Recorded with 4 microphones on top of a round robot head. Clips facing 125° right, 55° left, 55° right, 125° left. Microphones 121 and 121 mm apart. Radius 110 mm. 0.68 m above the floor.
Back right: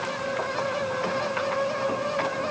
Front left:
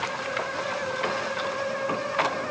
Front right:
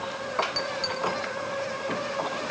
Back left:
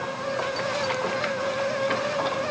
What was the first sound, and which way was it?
Only background noise.